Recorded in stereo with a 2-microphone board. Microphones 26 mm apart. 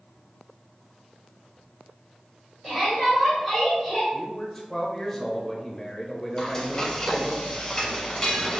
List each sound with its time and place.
2.6 s a shout: 15° right (ahead or behind), 1.7 m; by 4.0 s 10° left (ahead or behind), 1.4 m
4.1 s a man speaking: 15° left (ahead or behind), 0.9 m
6.4 s frying: 15° left (ahead or behind), 1.0 m